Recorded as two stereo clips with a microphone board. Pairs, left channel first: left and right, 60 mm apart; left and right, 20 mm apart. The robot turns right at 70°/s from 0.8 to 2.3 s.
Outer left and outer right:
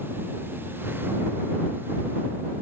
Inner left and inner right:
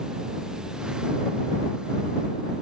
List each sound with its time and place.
Only background noise.